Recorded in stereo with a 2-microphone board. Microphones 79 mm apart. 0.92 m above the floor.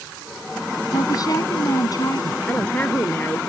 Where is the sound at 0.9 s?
50° left (ahead or behind).